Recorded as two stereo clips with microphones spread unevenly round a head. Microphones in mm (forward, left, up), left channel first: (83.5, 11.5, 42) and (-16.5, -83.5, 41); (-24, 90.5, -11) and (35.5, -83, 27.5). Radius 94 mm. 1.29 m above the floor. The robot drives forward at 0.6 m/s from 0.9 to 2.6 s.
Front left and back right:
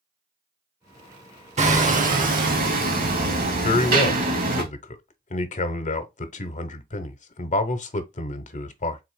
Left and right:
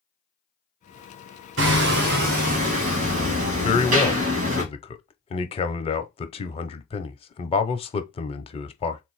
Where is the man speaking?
65° left, 0.7 m.